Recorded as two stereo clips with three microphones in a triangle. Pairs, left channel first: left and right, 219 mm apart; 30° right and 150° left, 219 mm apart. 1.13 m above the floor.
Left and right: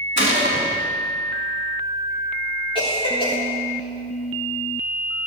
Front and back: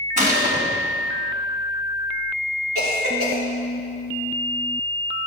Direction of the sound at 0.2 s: 105° left.